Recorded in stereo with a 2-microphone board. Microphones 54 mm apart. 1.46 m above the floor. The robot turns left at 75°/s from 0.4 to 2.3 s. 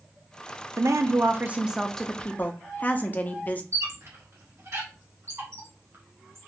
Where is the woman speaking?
95° right, 0.6 m; by 3.6 s 150° left, 0.6 m.